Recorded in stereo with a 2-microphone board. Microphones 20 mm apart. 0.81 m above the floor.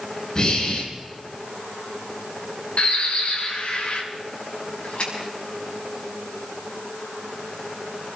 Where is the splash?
55° left (ahead or behind), 7.5 m.